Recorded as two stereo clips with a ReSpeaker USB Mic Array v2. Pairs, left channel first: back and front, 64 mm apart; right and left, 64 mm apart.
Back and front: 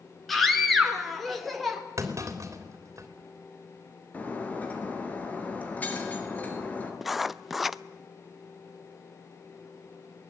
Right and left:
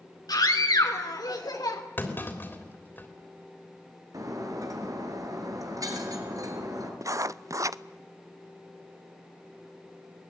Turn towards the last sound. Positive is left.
turn(degrees=85)